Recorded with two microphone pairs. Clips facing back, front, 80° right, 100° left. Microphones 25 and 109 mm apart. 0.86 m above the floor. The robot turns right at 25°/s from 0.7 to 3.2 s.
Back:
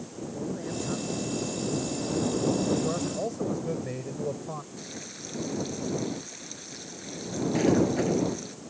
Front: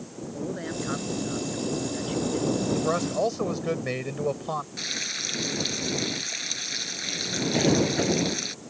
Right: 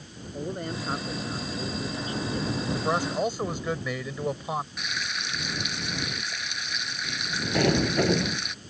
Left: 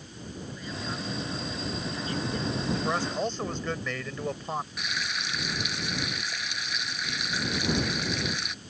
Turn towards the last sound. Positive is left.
turn(degrees=-75)